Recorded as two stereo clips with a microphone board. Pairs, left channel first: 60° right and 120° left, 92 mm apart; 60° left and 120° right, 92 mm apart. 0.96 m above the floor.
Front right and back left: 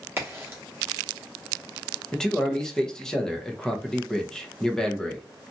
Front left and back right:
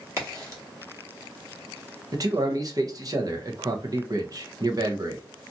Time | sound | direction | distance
0.2 | a crack | 175° right | 1.0 m
2.1 | a man speaking | 140° right | 0.7 m